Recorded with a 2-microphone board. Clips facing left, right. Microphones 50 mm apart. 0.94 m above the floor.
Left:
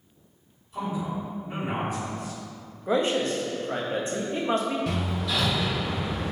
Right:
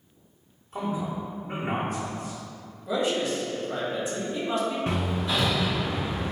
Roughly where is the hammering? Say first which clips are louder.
Right 1 dB; right.